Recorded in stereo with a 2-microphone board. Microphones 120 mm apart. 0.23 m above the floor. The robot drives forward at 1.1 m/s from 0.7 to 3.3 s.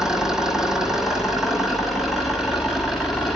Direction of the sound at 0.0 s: 5° right (ahead or behind).